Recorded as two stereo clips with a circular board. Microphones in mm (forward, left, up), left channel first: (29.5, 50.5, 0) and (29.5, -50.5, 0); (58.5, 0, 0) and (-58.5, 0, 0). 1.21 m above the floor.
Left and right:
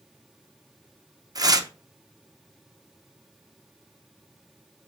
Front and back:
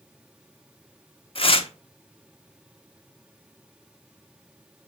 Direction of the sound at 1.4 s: 40° right.